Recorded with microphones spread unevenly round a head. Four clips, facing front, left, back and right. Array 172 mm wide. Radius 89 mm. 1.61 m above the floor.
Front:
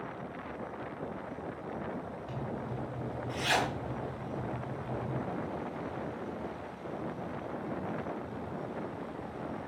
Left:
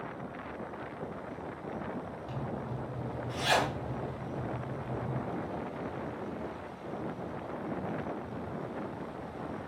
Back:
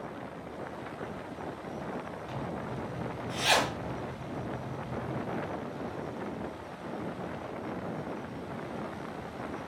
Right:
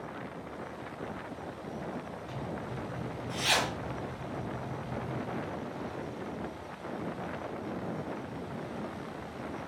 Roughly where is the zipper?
Behind left.